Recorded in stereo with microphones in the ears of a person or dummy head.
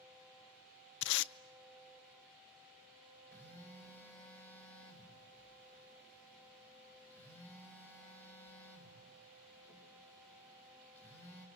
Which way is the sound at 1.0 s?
70° left (ahead or behind).